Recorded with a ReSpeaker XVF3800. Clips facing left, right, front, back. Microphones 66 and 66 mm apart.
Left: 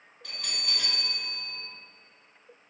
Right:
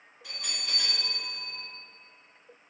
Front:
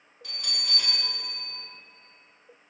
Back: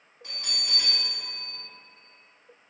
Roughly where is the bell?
Behind.